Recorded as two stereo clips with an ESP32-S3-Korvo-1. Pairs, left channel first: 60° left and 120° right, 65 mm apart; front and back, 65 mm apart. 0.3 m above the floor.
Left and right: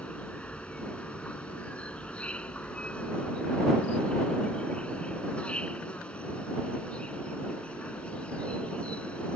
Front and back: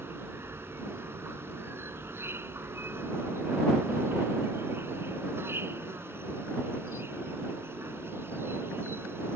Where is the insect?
130° left.